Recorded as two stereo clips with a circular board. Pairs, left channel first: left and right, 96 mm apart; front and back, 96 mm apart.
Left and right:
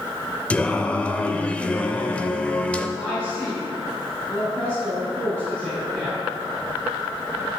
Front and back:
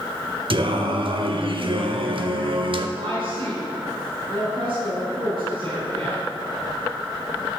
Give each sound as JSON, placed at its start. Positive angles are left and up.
{"t": 0.5, "sound": "singing", "azimuth_deg": 165, "distance_m": 0.5}
{"t": 3.0, "sound": "a woman speaking", "azimuth_deg": 170, "distance_m": 3.5}